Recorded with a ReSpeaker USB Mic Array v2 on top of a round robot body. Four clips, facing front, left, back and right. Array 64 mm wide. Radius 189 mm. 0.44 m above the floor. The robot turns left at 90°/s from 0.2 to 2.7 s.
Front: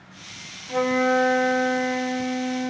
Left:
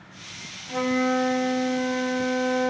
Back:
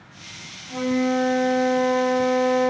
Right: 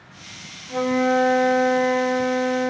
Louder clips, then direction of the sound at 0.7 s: Right 4 dB, front 2 dB; 5° right.